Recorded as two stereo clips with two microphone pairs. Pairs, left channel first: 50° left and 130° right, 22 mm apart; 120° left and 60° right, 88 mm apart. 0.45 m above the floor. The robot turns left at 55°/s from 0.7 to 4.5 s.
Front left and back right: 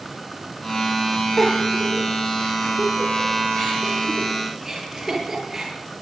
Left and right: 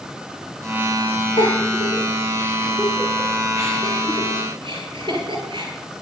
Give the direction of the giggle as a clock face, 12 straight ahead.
8 o'clock.